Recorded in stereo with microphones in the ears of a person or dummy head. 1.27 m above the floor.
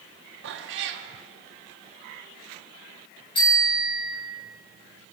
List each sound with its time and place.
0.4 s a cat meowing: 70° right (ahead or behind), 1.2 m
3.4 s a bicycle bell: 35° left (ahead or behind), 5.5 m